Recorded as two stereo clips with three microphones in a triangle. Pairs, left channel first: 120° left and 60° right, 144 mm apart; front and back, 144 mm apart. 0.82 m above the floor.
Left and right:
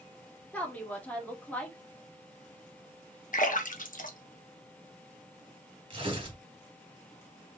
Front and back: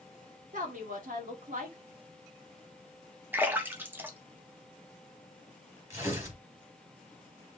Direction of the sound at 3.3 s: 105° left.